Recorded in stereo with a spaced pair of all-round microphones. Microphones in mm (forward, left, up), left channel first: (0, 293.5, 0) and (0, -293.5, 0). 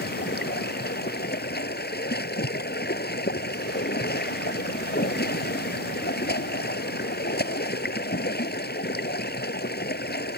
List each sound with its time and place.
0.0 s running water: 15° left (ahead or behind)